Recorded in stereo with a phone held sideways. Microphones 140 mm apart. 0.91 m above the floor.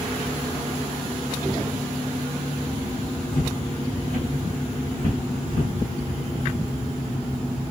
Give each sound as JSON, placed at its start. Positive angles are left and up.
{"t": 3.3, "sound": "footsteps", "side_deg": 55, "distance_m": 3.0}